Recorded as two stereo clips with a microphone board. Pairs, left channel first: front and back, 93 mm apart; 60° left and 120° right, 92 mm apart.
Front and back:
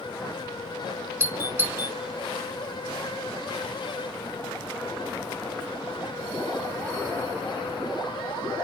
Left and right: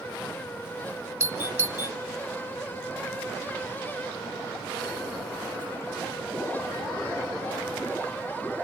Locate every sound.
1.2 s a doorbell: 145° right, 1.8 m